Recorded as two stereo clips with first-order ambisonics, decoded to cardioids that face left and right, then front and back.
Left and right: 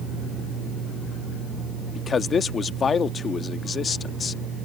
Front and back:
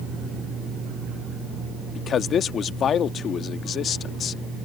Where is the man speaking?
35° left.